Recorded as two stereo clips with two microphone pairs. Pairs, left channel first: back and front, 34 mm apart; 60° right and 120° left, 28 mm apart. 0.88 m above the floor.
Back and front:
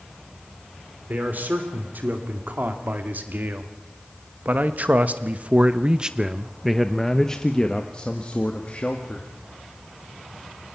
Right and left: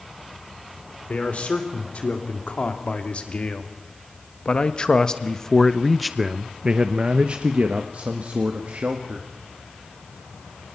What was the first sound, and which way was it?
A man speaking, 30° right.